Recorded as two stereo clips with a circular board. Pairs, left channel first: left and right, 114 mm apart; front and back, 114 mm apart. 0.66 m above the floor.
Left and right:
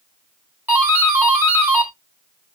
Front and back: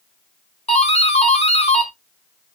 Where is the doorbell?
15° right, 3.5 m.